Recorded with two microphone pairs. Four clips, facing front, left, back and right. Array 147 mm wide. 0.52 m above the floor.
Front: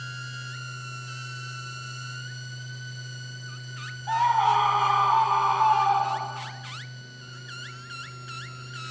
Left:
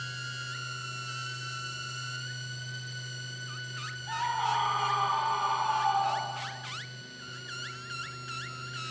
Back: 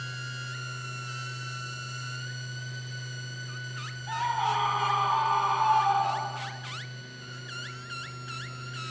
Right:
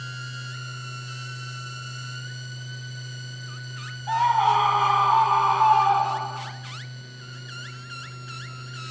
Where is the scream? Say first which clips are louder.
Right 10 dB, front 7 dB; 55° right, 3.5 m; by 6.5 s 80° right, 4.5 m.